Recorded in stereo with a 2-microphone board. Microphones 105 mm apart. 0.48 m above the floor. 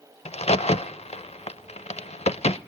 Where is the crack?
85° left, 0.6 m.